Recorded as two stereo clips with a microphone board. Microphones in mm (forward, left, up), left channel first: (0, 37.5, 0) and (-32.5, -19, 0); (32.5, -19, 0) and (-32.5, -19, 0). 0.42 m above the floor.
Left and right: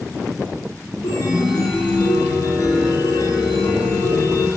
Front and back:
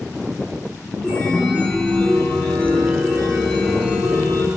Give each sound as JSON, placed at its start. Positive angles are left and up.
{"t": 1.0, "sound": "a chime", "azimuth_deg": 70, "distance_m": 2.0}